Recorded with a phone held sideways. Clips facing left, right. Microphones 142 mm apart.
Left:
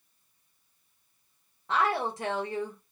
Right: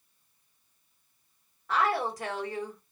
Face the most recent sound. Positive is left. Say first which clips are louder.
# even
turn(degrees=25)  # may be behind; listen again after turning